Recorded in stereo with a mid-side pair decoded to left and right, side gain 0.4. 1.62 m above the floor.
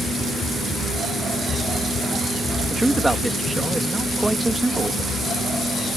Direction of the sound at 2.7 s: 15° right.